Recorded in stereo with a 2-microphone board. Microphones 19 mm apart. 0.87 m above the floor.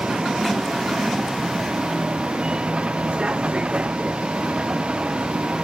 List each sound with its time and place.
0.0 s a vehicle: 55° right (ahead or behind)